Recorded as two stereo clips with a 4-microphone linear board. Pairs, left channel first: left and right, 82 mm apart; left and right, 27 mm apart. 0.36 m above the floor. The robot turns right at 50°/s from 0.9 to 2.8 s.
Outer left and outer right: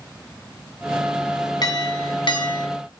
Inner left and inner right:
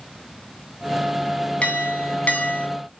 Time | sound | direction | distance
1.6 | a clink | 60° left | 2 m